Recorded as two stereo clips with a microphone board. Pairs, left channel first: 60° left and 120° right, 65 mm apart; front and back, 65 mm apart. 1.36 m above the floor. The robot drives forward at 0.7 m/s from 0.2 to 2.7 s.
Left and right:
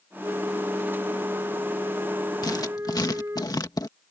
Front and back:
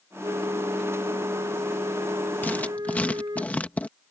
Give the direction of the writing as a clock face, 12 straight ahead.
10 o'clock.